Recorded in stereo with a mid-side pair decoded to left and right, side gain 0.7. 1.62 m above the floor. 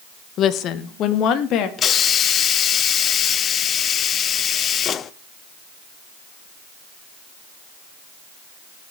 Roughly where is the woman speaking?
Ahead left.